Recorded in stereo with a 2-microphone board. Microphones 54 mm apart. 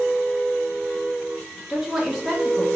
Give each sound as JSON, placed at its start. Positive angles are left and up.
{"t": 1.7, "sound": "a woman speaking", "side_deg": -10, "distance_m": 1.0}